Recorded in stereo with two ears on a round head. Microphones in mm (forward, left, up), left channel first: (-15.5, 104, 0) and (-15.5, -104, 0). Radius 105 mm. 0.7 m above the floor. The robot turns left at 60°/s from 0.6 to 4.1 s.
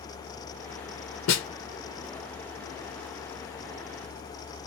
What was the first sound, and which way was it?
A snare drum, 65° left (ahead or behind).